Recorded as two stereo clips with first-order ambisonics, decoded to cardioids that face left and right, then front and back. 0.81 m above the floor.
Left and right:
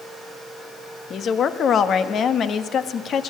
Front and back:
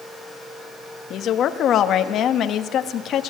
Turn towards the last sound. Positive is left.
turn(degrees=40)